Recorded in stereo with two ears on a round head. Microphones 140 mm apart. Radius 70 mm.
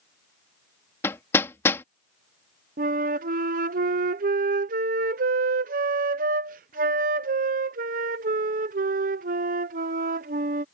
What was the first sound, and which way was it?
Hammering, 15° left (ahead or behind).